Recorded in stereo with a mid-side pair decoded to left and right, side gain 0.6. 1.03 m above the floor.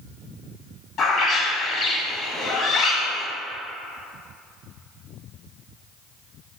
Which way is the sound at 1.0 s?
45° left.